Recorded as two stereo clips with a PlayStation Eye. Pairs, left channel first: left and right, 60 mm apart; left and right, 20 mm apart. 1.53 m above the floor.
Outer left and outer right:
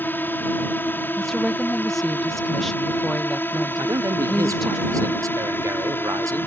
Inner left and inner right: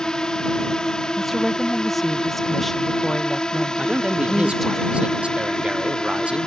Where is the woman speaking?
5° left (ahead or behind).